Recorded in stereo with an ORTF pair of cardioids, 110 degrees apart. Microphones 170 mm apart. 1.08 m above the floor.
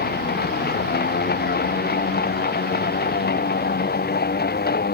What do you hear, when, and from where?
0.0 s a machine running: 70° left